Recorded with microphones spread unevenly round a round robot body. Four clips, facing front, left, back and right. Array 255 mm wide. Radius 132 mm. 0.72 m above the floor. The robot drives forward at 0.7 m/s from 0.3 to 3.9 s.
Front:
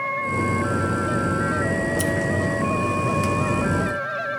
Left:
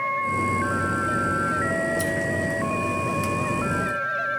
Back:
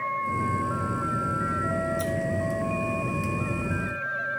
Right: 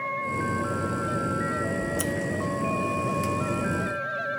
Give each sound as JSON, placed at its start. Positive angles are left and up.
{"t": 1.8, "sound": "scissors", "azimuth_deg": -40, "distance_m": 0.7}